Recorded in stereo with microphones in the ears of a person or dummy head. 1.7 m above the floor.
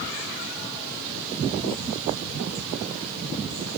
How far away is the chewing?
No chewing in this recording.